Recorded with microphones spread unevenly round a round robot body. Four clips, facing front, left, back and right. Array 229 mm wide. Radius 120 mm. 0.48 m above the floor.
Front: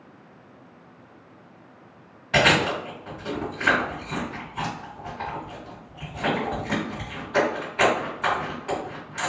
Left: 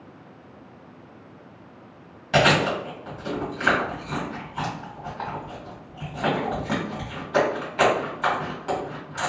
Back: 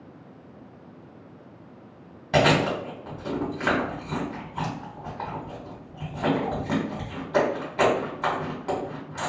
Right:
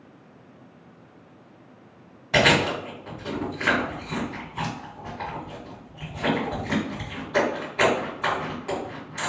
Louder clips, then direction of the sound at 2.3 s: Left 1 dB, even; 170° right.